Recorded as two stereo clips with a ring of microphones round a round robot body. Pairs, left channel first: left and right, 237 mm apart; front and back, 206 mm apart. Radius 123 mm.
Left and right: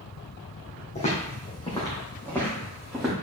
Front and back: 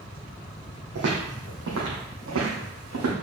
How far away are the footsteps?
About 2.5 m.